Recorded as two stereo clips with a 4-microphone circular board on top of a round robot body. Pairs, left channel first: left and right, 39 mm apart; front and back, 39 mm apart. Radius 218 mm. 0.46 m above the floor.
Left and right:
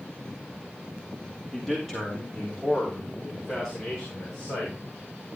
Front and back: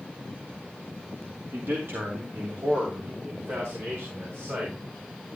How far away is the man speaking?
About 2.5 m.